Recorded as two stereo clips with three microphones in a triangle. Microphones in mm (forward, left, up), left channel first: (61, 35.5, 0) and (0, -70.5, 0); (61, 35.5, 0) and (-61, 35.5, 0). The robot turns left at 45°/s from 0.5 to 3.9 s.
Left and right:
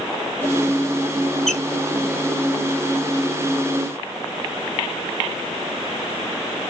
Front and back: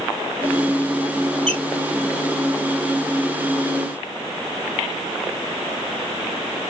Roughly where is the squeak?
Behind left.